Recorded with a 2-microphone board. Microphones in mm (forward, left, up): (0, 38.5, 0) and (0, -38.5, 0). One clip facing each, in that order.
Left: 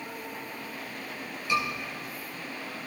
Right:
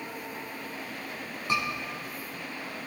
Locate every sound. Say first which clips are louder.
1.5 s a scream: left 2 dB; 45° right (ahead or behind), 7.5 m